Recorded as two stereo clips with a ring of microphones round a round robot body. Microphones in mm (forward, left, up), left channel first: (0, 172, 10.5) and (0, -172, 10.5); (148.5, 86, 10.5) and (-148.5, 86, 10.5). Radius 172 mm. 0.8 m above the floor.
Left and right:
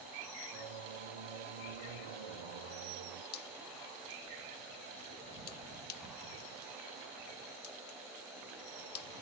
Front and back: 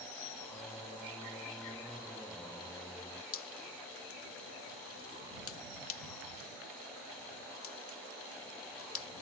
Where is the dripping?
40° left.